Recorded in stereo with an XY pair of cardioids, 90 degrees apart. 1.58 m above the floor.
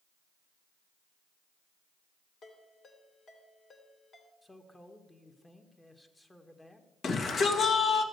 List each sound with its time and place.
2.4 s a ringtone: 65° left, 2.5 m
4.4 s a man speaking: 15° left, 1.5 m
7.0 s a shout: 60° left, 2.0 m